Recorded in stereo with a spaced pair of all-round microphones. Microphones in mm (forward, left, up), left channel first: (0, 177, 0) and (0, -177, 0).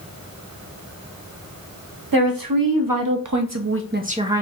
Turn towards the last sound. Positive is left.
turn(degrees=-5)  # may be behind; listen again after turning